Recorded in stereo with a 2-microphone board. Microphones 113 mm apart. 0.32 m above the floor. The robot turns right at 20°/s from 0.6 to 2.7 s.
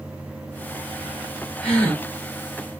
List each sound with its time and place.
1.6 s a gasp: 10° left (ahead or behind), 1.9 m; by 2.0 s 15° left (ahead or behind), 1.9 m